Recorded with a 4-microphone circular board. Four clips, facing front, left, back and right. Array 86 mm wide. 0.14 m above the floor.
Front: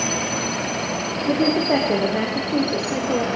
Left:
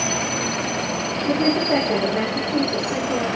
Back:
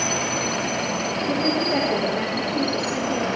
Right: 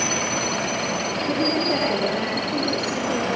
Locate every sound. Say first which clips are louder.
1.3 s a woman speaking: left 4 dB, front 5 dB; 10° left, 7.5 m